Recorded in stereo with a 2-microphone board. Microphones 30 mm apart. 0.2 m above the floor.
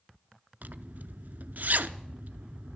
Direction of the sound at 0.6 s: 70° right (ahead or behind).